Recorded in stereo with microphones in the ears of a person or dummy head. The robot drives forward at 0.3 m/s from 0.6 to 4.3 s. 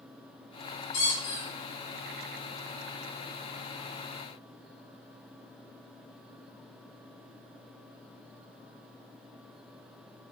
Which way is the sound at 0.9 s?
60° left (ahead or behind).